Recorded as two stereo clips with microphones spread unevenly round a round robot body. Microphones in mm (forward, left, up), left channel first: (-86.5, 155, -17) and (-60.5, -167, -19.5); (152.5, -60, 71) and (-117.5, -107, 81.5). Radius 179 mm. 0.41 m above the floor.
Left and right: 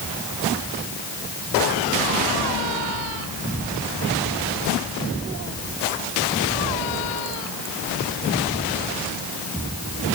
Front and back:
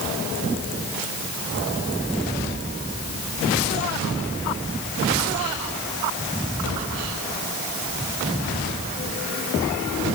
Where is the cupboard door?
I don't hear a cupboard door.